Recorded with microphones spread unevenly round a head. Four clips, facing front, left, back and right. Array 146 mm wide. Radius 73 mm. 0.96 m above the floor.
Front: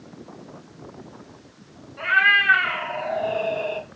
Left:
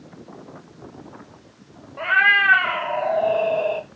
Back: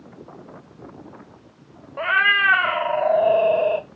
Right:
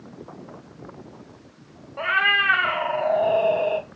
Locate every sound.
2.0 s a cat meowing: 175° right, 1.1 m